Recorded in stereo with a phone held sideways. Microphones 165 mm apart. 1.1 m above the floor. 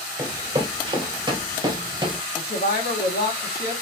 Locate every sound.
0.2 s running footsteps: 25° right (ahead or behind), 1.7 m
2.4 s a woman speaking: 75° left (ahead or behind), 2 m